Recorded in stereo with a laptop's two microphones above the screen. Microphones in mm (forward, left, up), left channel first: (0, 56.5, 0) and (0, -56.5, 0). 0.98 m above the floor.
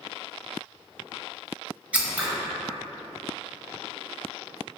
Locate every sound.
1.9 s scissors: 10° right (ahead or behind), 0.8 m